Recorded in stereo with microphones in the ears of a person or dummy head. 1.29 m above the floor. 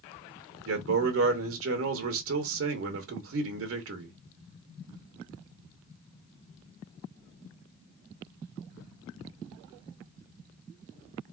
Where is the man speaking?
65° right (ahead or behind), 0.8 m.